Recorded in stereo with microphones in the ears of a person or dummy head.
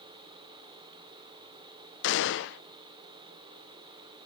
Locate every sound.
2.0 s a gunshot: 60° left (ahead or behind), 0.6 m